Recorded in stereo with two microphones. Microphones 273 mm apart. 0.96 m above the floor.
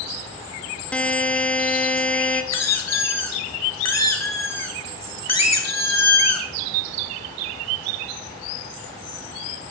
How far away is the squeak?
About 1.2 m.